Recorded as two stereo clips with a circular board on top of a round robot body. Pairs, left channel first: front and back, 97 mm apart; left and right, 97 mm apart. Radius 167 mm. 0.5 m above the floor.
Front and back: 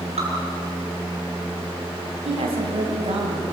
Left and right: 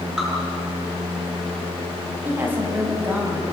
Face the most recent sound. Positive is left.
turn(degrees=-160)